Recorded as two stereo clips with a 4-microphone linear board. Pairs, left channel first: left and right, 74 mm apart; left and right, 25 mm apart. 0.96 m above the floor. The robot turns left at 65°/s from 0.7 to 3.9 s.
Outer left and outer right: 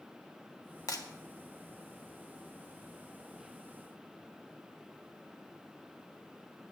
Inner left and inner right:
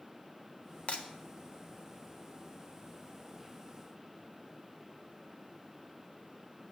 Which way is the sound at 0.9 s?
50° left (ahead or behind).